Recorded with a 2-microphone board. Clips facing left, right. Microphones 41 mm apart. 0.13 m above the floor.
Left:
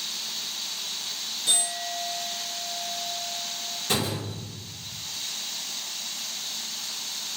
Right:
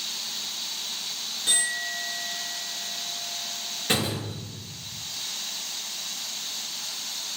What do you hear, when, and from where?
1.5 s a clink: 35° right (ahead or behind), 1.2 m
3.9 s a door slam: 45° right (ahead or behind), 1.7 m